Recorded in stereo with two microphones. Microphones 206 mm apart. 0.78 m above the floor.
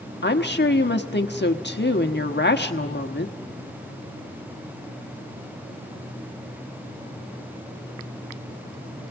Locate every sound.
0.2 s a woman speaking: 55° left (ahead or behind), 1.2 m